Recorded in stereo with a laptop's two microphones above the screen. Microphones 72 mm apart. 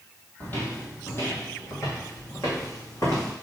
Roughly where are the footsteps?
Left.